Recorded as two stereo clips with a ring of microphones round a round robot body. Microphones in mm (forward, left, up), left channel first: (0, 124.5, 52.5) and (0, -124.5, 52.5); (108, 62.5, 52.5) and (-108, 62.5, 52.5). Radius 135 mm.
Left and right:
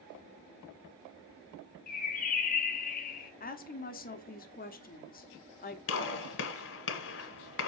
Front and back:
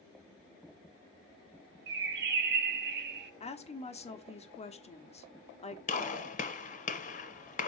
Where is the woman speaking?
50° left, 1.2 m.